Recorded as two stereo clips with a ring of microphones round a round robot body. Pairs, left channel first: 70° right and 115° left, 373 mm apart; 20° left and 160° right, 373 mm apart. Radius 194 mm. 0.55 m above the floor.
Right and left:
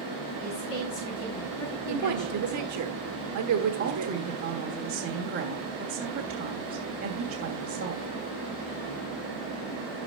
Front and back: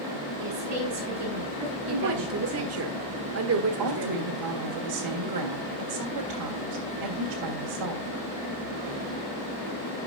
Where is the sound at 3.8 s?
Straight behind, 1.7 m.